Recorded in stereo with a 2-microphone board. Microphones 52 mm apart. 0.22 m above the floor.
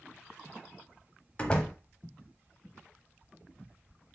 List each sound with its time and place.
1.4 s a door slam: 20° left (ahead or behind), 0.7 m